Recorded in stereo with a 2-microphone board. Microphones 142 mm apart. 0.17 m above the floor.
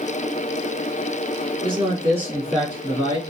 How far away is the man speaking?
About 1.9 m.